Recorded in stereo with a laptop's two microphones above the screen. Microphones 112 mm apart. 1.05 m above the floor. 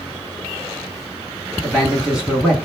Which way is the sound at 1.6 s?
10° left (ahead or behind).